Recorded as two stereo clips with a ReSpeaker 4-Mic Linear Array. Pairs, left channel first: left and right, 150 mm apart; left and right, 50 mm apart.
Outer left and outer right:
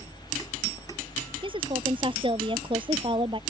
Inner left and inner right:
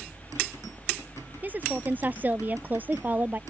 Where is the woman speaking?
35° right (ahead or behind).